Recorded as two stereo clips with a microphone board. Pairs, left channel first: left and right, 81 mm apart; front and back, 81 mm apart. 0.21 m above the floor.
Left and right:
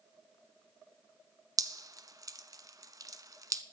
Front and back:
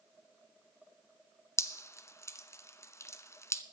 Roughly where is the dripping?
Ahead right.